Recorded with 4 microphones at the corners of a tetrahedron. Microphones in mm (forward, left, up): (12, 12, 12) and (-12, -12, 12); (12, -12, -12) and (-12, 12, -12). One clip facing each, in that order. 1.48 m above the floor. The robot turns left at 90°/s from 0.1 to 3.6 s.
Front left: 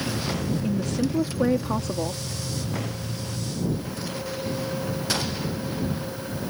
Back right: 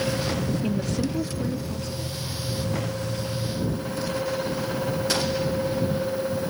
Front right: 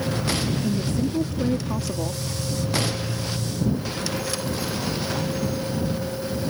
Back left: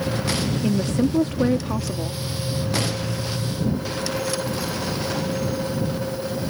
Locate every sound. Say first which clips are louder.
0.6 s a woman speaking: front left 1 dB, back left 3 dB; 160° left; by 2.2 s 20° left